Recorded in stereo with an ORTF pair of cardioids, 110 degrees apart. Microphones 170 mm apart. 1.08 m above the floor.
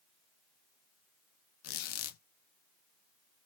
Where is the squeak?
70° left, 0.5 m.